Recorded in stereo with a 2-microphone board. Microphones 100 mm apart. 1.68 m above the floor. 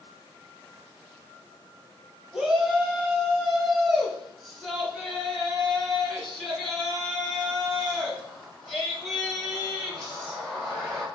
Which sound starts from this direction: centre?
A shout, at 2.3 s.